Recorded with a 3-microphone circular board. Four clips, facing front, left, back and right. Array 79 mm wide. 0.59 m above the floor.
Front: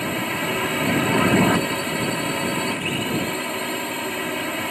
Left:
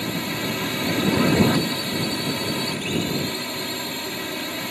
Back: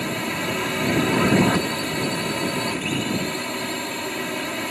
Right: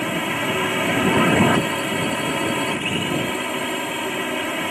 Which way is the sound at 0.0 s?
75° right.